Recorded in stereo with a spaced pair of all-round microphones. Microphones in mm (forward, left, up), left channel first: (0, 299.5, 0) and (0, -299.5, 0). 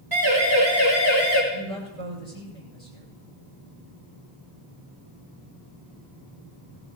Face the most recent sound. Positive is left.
turn(degrees=-70)  # may be behind; listen again after turning